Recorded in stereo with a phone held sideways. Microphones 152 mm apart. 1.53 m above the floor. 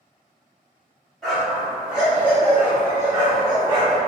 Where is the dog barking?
Centre (ahead or behind), 1.9 m; by 4.0 s 30° right (ahead or behind), 1.3 m.